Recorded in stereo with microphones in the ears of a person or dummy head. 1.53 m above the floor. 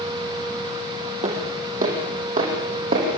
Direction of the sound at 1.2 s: 40° right (ahead or behind).